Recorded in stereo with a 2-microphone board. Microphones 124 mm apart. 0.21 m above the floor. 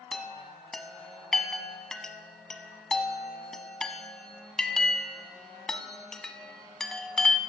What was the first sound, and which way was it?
A chime, 5° left (ahead or behind).